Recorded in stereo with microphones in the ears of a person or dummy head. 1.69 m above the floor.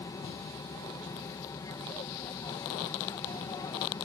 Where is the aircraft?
20° left (ahead or behind).